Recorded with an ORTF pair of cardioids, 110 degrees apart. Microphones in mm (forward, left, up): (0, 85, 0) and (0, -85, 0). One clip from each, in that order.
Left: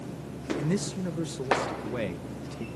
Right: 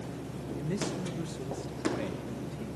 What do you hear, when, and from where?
0.6 s a man speaking: 45° left, 1.9 m